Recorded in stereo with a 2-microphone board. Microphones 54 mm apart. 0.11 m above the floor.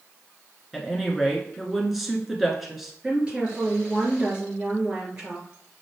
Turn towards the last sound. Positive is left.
turn(degrees=-20)  # may be behind; listen again after turning